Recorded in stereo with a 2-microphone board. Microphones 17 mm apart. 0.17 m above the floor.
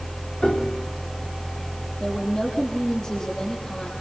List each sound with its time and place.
0.4 s a piano: 75° left (ahead or behind), 4.5 m
2.0 s a woman speaking: 55° left (ahead or behind), 7.5 m